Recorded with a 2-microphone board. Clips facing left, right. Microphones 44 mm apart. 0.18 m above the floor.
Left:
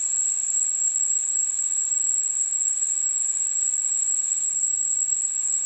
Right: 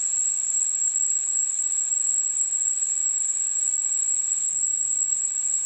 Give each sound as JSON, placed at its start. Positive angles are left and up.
{"t": 0.0, "sound": "an insect", "side_deg": 35, "distance_m": 1.0}